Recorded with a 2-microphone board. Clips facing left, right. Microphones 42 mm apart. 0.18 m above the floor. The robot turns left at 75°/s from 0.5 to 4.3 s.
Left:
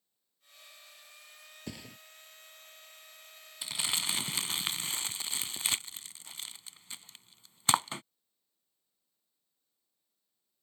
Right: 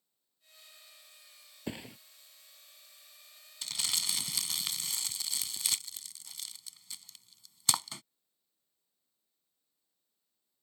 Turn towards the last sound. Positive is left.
turn(degrees=35)  # may be behind; listen again after turning